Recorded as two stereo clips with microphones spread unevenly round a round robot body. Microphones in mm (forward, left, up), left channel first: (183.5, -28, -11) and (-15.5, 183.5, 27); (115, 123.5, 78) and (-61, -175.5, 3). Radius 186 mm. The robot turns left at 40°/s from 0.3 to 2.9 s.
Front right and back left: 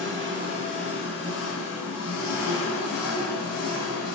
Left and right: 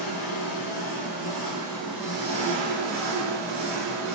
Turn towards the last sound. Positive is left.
turn(degrees=-75)